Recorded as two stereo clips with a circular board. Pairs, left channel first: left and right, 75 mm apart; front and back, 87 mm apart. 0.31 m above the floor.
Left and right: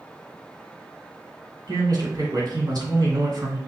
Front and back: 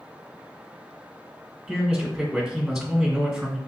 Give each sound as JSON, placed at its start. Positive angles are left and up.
{"t": 1.7, "sound": "a man speaking", "azimuth_deg": -90, "distance_m": 2.5}